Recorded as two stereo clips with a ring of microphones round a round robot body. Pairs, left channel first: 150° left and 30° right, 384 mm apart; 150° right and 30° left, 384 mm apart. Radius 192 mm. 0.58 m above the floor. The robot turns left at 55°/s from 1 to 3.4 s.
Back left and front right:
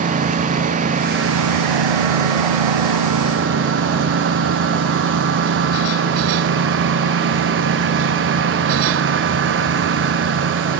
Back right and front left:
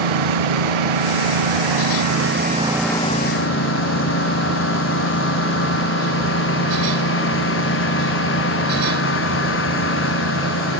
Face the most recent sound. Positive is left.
turn(degrees=-90)